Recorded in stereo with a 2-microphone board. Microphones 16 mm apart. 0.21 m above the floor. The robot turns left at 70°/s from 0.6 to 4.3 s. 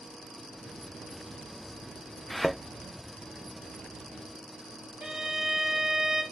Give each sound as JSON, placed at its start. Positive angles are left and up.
{"t": 2.3, "sound": "a thud", "side_deg": 15, "distance_m": 1.2}
{"t": 5.0, "sound": "a violin", "side_deg": -45, "distance_m": 1.4}